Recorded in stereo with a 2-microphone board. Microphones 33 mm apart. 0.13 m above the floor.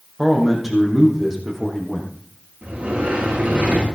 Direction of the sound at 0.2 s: 5° right (ahead or behind).